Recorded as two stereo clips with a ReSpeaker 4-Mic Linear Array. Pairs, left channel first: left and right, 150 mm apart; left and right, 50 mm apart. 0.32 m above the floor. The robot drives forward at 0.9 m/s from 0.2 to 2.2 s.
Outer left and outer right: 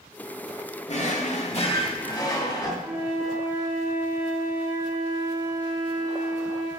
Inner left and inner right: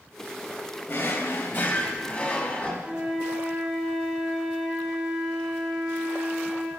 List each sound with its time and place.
0.9 s a drawer: 50° left (ahead or behind), 0.8 m; by 2.7 s 30° left (ahead or behind), 1.2 m
2.8 s a flute: 15° right (ahead or behind), 2 m